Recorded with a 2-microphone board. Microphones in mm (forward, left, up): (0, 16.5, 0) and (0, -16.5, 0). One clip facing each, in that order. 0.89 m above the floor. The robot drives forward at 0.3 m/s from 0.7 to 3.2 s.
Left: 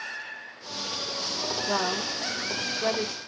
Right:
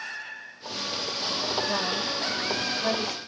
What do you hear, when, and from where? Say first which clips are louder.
1.7 s a woman speaking: even; 45° left (ahead or behind), 1.1 m; by 3.2 s 35° left (ahead or behind), 1.3 m